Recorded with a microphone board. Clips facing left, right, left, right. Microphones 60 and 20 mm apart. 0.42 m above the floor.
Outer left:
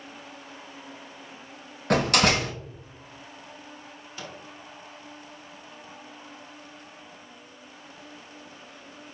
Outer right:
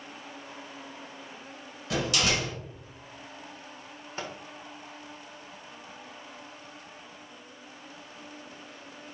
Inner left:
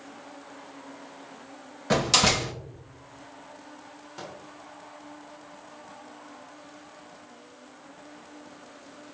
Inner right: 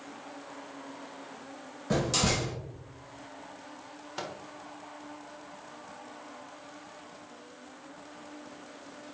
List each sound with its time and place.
1.9 s a door slam: 55° left (ahead or behind), 1.0 m
4.2 s a microwave: 35° right (ahead or behind), 1.2 m